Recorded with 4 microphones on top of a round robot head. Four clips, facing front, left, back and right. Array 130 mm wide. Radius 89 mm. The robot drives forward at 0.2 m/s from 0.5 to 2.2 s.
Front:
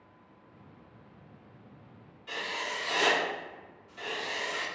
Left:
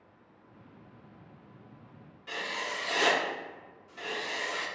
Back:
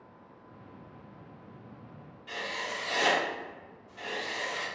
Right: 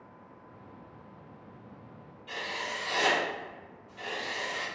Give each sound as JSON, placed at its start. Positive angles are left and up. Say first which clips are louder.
{"t": 2.3, "sound": "writing", "louder": "even, even", "azimuth_deg": 85, "distance_m": 1.5}